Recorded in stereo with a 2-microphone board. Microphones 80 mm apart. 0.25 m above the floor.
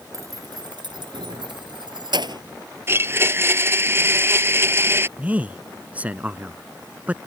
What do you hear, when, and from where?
0.1 s keys jangling: 45° right (ahead or behind); by 2.4 s 65° right (ahead or behind)
2.9 s a blender: 30° right (ahead or behind)
5.2 s a man speaking: 20° right (ahead or behind)